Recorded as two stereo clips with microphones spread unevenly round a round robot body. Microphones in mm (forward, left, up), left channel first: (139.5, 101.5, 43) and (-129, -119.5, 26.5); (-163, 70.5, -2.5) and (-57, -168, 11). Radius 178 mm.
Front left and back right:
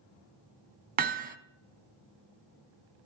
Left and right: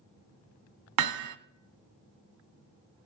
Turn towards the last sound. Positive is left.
turn(degrees=-75)